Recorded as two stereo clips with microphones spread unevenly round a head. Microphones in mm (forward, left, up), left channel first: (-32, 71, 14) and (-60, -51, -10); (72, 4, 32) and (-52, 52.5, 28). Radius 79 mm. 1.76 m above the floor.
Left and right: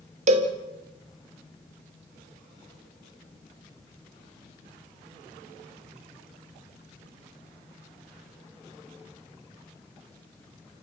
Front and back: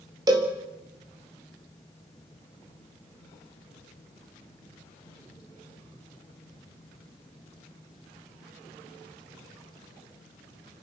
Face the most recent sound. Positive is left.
turn(degrees=-135)